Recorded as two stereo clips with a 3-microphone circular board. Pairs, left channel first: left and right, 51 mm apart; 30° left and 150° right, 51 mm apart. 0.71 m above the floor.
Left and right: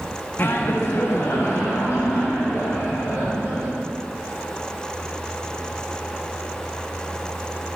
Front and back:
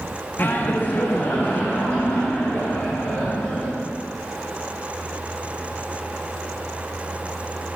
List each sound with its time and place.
0.4 s laughter: 65° left, 0.6 m; by 3.7 s 80° left, 3 m